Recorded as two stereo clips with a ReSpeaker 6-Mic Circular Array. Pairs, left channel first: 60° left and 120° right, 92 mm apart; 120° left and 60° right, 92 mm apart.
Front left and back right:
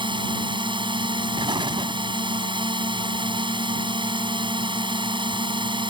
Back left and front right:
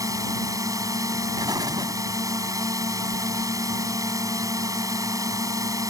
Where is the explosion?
100° right.